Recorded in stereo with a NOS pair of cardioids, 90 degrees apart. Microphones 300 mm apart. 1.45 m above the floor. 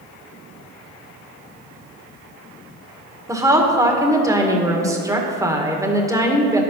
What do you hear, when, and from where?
3.3 s a woman speaking: 10° right, 1.9 m